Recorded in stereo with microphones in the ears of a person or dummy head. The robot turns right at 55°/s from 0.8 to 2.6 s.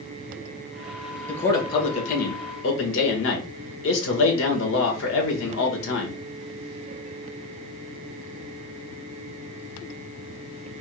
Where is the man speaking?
5° left, 1.7 m; by 6.2 s 80° left, 1.7 m.